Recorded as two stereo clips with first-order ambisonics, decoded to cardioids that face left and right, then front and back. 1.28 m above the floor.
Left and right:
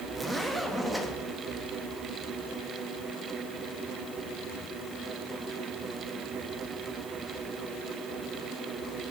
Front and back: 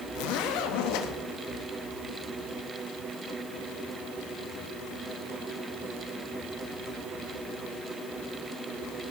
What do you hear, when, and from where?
0.1 s a zipper: 5° right, 1.2 m